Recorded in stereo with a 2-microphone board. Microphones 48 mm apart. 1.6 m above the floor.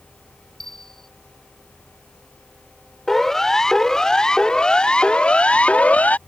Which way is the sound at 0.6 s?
5° left (ahead or behind).